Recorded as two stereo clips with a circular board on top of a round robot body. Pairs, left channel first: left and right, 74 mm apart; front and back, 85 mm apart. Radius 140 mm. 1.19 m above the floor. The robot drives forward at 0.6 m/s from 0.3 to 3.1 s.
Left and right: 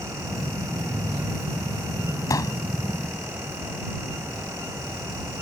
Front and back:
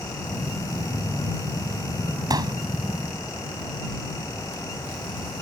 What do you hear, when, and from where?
2.3 s a pop: 135° left